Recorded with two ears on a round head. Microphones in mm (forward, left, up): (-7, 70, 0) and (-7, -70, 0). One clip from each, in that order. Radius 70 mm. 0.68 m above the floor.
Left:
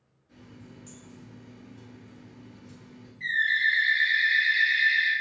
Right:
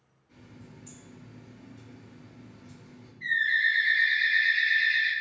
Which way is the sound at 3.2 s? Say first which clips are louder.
Left 1 dB; 45° left (ahead or behind).